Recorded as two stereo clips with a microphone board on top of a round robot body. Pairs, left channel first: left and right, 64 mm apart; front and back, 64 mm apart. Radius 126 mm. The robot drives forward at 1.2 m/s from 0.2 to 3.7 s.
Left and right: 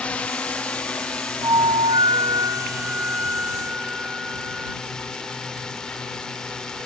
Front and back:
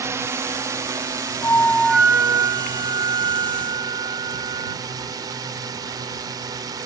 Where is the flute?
50° right; by 4.8 s 165° right.